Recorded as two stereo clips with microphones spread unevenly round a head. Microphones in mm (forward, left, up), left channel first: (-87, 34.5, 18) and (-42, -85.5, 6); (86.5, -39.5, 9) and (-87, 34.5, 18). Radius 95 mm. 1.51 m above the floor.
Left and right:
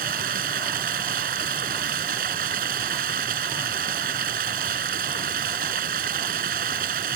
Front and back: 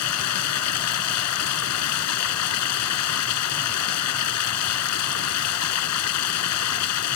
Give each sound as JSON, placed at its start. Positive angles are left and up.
{"t": 0.0, "sound": "running water", "azimuth_deg": -20}